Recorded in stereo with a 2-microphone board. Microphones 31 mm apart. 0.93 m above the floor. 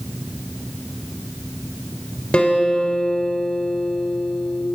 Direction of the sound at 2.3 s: 35° left (ahead or behind).